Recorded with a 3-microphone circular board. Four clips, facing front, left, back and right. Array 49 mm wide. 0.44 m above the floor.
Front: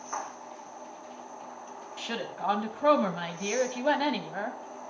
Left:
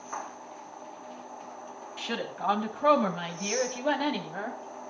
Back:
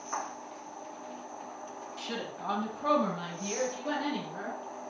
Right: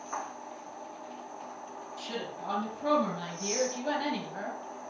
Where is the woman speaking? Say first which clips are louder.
Left 6 dB, front 4 dB; 55° left, 2.5 m; by 4.6 s 15° left, 2.5 m.